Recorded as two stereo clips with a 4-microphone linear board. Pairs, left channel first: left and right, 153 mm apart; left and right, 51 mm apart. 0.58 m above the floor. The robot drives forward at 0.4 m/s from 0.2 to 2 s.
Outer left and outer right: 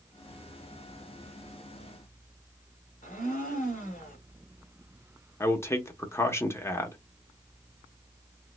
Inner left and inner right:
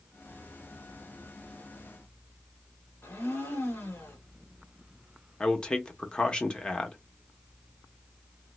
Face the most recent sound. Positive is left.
turn(degrees=20)  # may be behind; listen again after turning